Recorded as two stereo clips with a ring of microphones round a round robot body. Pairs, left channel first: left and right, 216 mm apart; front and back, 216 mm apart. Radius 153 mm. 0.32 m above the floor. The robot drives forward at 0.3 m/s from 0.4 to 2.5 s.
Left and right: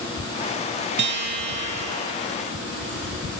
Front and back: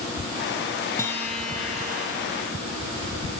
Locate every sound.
1.0 s a guitar: 75° right, 0.9 m; by 2.1 s 105° right, 0.9 m